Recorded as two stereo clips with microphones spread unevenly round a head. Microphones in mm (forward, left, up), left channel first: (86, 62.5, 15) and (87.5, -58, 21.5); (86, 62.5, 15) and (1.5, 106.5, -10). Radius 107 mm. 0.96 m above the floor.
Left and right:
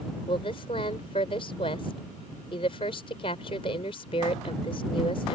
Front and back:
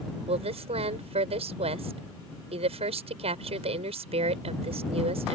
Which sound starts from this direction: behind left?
A woman speaking, at 0.3 s.